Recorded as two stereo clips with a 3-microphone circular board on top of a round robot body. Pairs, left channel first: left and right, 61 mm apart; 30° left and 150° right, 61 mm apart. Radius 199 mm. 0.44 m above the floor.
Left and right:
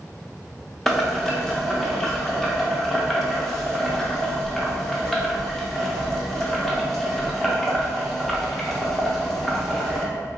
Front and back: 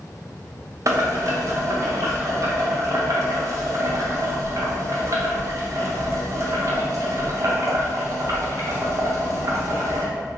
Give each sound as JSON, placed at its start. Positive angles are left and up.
{"t": 0.9, "sound": "boiling", "azimuth_deg": 175, "distance_m": 0.7}